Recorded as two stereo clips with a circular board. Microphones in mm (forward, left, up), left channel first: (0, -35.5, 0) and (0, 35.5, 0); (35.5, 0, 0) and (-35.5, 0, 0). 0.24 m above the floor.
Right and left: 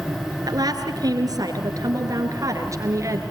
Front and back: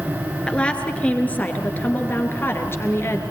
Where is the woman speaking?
75° left, 4 m; by 3.2 s 50° left, 4 m.